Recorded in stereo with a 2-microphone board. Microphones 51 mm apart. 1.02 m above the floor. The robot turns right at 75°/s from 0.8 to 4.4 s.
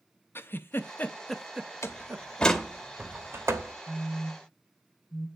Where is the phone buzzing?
20° left (ahead or behind), 1.2 m; by 5.3 s 55° left (ahead or behind), 1.2 m.